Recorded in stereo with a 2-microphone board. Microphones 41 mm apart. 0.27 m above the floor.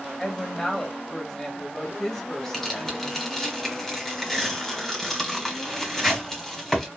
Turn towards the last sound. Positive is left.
turn(degrees=10)  # may be behind; listen again after turning